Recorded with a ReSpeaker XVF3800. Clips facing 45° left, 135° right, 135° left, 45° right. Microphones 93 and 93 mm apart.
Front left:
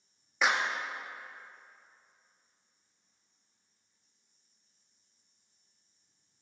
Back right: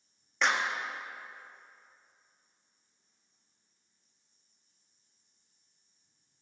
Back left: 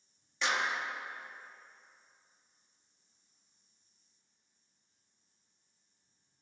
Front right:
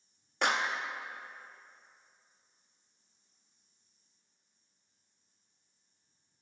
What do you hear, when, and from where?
0.4 s a clap: 40° right, 0.5 m